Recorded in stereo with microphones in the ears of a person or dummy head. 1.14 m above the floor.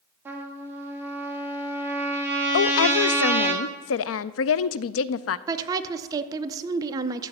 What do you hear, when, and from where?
0.2 s a trumpet: 10° right (ahead or behind), 1.7 m
2.5 s a woman speaking: 65° left (ahead or behind), 0.5 m
5.5 s a woman speaking: 20° right (ahead or behind), 0.8 m